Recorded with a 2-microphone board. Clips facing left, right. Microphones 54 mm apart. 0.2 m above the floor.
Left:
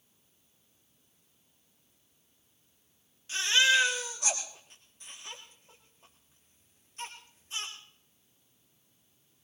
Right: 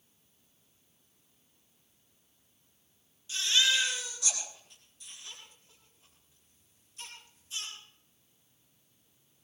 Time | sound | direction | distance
3.3 | a baby crying | 60° left (ahead or behind) | 5.5 m